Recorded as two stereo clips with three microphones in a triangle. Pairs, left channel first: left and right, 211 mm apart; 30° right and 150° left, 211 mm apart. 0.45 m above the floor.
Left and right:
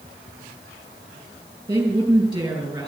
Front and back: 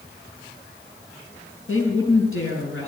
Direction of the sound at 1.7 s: 20° right.